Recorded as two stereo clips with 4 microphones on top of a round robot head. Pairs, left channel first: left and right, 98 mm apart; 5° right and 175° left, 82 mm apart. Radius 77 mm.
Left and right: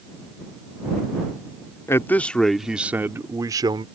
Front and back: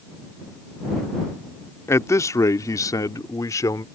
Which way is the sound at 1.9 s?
35° left.